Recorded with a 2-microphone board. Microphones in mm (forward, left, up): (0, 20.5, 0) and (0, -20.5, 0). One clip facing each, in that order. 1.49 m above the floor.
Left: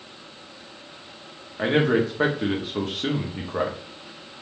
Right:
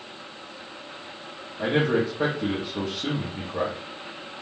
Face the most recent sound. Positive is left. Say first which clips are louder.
# left 2 dB
turn(degrees=45)  # may be behind; listen again after turning